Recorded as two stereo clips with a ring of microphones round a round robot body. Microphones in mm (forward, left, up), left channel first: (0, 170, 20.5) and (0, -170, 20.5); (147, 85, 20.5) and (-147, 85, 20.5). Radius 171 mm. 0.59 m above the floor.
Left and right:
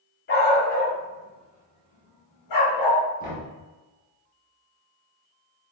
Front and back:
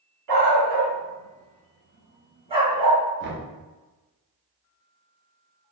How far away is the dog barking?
About 1.7 m.